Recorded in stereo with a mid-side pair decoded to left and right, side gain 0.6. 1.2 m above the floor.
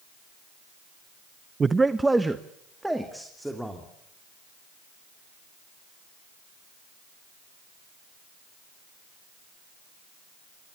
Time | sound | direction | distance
1.6 | a man speaking | 25° right | 0.6 m